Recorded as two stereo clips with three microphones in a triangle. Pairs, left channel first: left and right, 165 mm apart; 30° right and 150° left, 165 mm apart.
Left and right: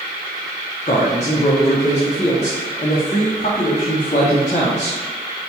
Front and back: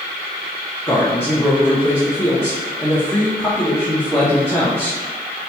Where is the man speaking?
45° left, 0.8 m.